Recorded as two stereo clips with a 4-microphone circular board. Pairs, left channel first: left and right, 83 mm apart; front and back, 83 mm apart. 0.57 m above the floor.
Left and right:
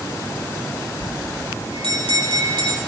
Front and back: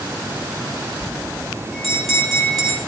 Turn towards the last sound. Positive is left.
turn(degrees=-90)